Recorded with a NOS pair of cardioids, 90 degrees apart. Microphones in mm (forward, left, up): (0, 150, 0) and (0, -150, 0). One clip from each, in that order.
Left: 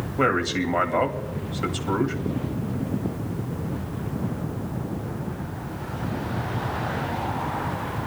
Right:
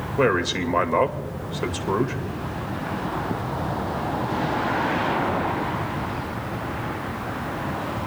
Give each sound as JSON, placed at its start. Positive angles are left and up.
{"t": 0.2, "sound": "a man speaking", "azimuth_deg": -25, "distance_m": 2.5}